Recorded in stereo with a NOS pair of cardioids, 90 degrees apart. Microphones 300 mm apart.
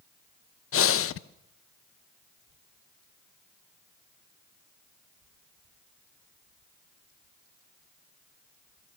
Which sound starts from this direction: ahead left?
Breathing, at 0.7 s.